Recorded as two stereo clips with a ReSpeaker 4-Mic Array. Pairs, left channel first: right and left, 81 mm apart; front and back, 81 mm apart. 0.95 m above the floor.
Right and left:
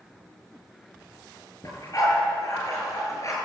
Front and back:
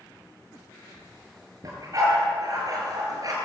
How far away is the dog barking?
About 9 m.